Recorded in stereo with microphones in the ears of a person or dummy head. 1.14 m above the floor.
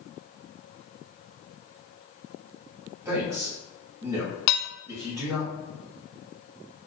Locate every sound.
3.0 s a man speaking: 15° right (ahead or behind), 1.2 m
4.5 s dishes clattering: 55° left (ahead or behind), 0.5 m